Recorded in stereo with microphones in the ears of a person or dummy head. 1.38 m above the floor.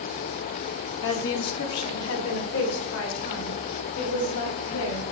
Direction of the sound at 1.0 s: 65° left (ahead or behind).